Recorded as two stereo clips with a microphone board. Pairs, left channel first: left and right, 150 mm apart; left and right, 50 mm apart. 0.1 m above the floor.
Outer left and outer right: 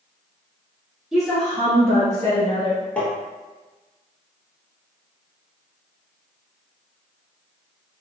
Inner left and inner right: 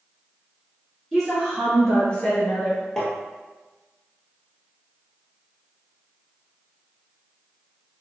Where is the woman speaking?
Centre (ahead or behind), 2.0 m; by 2.8 s 35° left (ahead or behind), 2 m.